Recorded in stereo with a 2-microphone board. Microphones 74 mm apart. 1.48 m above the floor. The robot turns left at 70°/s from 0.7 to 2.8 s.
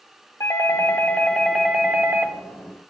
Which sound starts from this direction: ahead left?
A doorbell, at 0.4 s.